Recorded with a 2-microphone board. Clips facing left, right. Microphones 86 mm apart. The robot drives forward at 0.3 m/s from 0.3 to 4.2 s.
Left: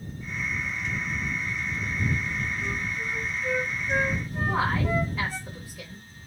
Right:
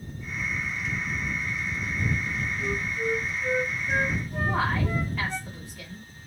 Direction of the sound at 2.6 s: 50° right (ahead or behind).